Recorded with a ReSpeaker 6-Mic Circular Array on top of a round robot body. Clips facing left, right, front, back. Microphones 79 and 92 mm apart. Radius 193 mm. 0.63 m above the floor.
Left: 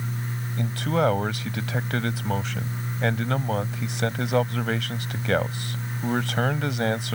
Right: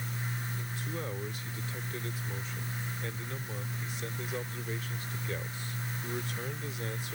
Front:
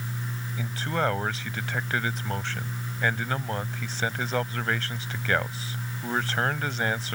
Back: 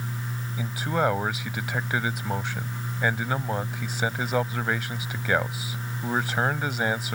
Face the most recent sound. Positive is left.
turn(degrees=100)